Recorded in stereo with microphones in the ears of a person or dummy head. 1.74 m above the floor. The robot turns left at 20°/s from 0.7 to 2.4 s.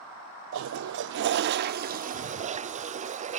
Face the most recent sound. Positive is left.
turn(degrees=-150)